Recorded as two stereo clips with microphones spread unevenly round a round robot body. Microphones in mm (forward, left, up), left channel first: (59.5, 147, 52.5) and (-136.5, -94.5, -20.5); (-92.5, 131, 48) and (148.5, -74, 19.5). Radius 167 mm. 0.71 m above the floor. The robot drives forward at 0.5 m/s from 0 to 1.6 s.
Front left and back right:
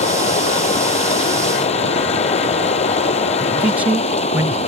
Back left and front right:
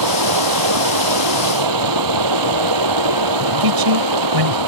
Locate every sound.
0.0 s running water: 20° right
3.6 s a man speaking: 45° right